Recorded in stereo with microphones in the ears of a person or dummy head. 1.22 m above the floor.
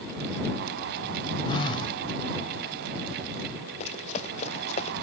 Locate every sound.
1.5 s a phone buzzing: 30° left (ahead or behind)
3.8 s running footsteps: 40° left (ahead or behind)